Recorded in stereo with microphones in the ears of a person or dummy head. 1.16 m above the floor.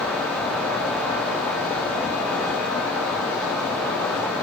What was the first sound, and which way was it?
Only background noise.